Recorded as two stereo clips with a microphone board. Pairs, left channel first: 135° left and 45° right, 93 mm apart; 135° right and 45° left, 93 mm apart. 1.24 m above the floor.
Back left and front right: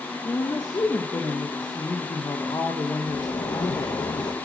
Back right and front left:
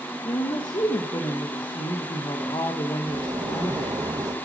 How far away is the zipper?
About 1.3 m.